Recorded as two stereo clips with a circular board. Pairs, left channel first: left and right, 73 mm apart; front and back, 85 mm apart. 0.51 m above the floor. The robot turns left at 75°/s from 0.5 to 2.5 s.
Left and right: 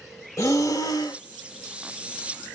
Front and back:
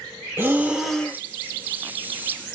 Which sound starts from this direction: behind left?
Breathing, at 0.4 s.